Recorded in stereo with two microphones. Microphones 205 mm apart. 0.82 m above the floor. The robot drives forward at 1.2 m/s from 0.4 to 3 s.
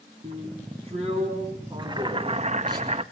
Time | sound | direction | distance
0.2 | a drill | 35° right (ahead or behind) | 4.5 m
1.8 | boiling | 20° right (ahead or behind) | 1.3 m